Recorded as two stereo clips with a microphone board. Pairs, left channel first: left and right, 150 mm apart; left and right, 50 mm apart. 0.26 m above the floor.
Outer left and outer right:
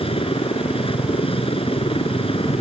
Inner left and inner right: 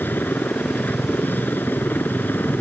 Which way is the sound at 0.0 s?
40° left (ahead or behind).